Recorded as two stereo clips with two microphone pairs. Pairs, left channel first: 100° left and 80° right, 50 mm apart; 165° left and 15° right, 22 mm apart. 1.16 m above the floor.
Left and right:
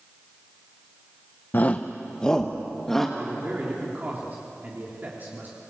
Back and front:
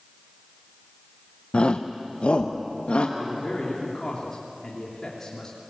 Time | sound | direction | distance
1.5 | a shout | 145° left | 0.6 m
3.2 | a man speaking | 130° right | 3 m